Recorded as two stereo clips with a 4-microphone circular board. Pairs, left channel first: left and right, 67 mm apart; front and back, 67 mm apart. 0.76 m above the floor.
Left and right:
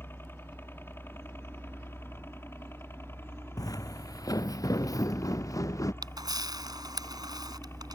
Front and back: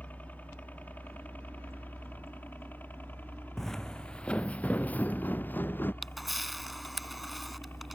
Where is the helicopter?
55° left; by 8.0 s 50° left.